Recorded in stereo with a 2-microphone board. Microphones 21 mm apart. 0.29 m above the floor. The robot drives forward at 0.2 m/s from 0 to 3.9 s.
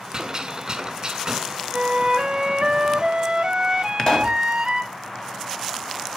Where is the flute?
35° right (ahead or behind), 0.9 m; by 4.9 s 25° right (ahead or behind), 1.2 m.